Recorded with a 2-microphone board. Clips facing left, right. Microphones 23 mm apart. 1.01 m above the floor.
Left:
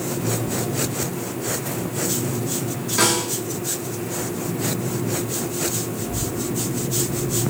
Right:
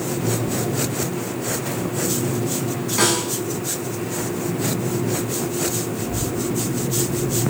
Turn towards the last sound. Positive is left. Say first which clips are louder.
# right 2 dB
turn(degrees=-35)  # may be behind; listen again after turning